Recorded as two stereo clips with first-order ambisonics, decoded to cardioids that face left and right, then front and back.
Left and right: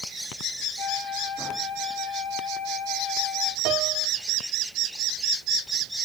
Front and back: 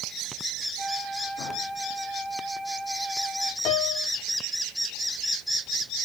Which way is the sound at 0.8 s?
90° left.